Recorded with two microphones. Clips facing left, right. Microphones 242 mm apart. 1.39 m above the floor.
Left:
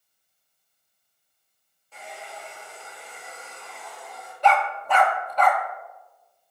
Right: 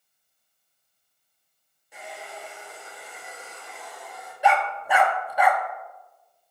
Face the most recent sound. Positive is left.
turn(degrees=-10)  # may be behind; listen again after turning